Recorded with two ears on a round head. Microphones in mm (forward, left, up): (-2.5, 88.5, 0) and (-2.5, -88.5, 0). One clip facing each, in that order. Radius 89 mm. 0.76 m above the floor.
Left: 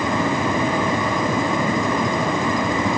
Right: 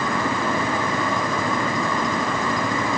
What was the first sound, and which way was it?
Only background noise.